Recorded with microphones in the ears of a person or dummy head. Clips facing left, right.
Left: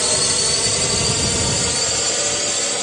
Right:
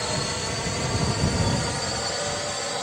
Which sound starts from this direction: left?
A drone, at 0.0 s.